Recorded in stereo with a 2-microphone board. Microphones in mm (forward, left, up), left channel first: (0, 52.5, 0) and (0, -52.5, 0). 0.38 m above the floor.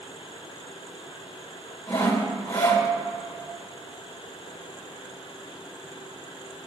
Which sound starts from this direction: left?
Sawing, at 1.9 s.